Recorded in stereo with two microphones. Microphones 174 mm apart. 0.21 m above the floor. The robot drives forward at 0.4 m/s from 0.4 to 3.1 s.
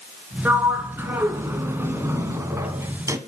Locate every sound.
0.5 s a sliding door: 10° right (ahead or behind), 2.5 m; by 3.2 s 15° right (ahead or behind), 1.5 m